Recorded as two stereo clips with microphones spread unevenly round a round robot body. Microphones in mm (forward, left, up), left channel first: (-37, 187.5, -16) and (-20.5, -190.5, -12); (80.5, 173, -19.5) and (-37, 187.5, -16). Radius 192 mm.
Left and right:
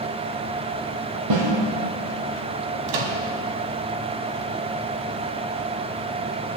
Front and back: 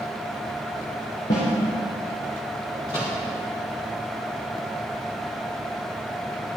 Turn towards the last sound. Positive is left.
turn(degrees=-75)